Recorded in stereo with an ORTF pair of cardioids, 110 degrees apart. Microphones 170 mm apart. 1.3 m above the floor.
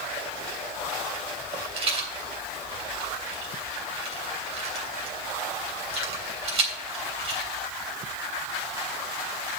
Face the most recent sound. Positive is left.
turn(degrees=-35)